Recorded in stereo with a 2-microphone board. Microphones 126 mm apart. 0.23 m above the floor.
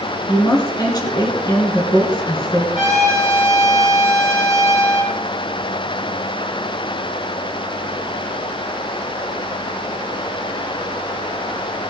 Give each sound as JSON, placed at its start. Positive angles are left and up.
{"t": 0.3, "sound": "a woman speaking", "side_deg": 30, "distance_m": 3.5}
{"t": 2.8, "sound": "a trumpet", "side_deg": 60, "distance_m": 5.0}